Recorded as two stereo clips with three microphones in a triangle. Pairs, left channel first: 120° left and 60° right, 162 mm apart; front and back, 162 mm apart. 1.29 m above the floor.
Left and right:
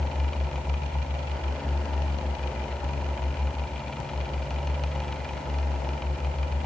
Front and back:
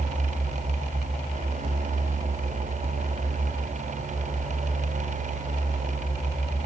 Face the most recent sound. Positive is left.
No sound to turn to.